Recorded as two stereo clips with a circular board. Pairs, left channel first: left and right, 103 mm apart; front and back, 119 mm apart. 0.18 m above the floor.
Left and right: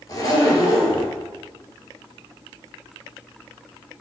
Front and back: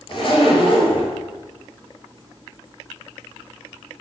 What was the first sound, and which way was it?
A zipper, 40° left.